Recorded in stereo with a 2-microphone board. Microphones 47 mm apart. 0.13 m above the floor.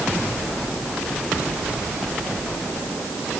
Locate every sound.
Only background noise.